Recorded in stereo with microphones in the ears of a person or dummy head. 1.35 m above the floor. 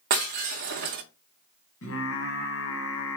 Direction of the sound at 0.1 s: 50° right (ahead or behind).